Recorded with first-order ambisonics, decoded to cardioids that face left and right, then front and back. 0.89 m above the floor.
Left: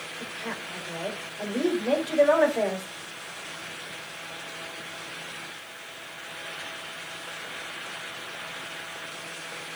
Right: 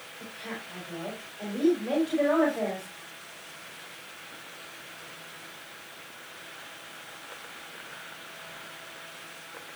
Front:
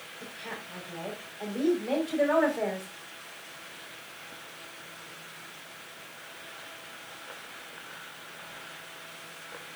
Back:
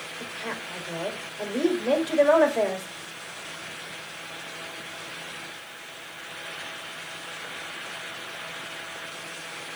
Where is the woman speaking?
155° left, 4 m.